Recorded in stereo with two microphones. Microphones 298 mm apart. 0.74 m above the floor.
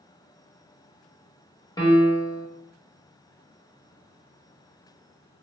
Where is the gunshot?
I don't hear a gunshot.